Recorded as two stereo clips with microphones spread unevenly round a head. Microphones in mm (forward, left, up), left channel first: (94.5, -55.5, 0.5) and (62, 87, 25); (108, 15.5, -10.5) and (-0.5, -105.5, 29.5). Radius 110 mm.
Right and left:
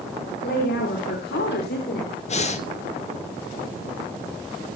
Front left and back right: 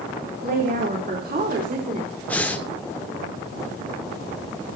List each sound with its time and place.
0.4 s a woman speaking: 105° right, 3.5 m; by 2.1 s 95° right, 4.5 m
2.3 s breathing: 35° right, 3 m